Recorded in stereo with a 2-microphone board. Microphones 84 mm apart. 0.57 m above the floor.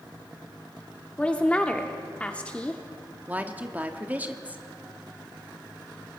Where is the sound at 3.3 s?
20° right (ahead or behind), 1.2 m.